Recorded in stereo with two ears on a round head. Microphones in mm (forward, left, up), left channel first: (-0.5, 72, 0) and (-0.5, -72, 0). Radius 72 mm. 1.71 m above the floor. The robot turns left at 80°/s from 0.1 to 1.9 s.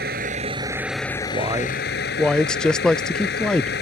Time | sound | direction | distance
0.0 | a vehicle | 110° right | ?
1.3 | a man speaking | 140° right | ?